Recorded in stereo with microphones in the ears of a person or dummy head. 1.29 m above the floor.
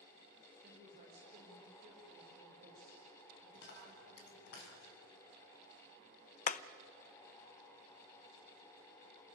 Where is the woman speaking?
35° right (ahead or behind), 5 m.